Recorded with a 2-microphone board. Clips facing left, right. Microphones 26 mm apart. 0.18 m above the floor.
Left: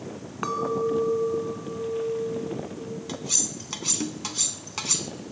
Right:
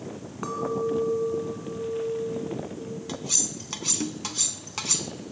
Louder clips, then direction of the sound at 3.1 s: Even; 5° left (ahead or behind).